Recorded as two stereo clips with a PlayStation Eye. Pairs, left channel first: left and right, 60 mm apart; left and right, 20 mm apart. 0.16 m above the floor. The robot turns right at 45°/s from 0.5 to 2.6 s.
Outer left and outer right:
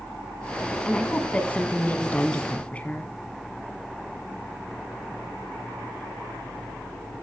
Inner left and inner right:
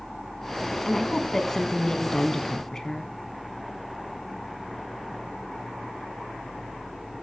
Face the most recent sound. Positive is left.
turn(degrees=25)  # may be behind; listen again after turning